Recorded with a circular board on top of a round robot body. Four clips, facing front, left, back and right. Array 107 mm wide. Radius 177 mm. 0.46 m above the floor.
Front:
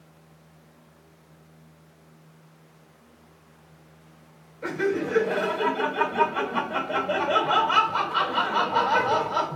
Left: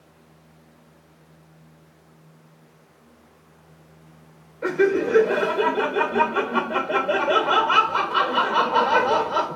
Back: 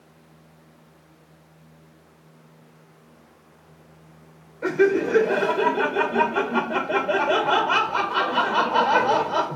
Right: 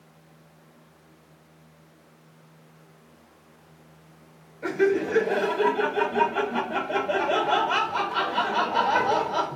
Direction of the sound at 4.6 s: 130° left.